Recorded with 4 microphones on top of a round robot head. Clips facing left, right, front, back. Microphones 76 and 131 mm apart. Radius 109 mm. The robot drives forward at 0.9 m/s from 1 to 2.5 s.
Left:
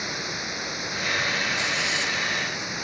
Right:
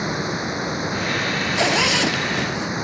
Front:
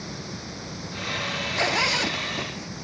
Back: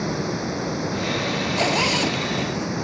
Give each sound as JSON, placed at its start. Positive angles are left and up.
{"t": 0.0, "sound": "running water", "azimuth_deg": -145}
{"t": 1.6, "sound": "a zipper", "azimuth_deg": -105}